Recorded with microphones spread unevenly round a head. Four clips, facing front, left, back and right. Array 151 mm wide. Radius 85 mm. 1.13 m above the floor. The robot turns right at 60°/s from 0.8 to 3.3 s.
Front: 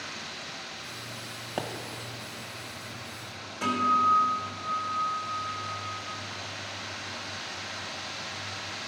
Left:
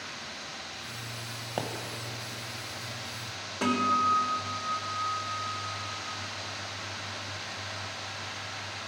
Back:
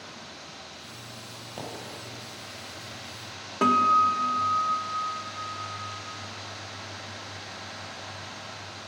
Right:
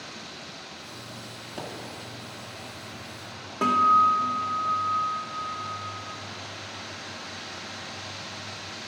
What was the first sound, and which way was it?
A pop, 40° left.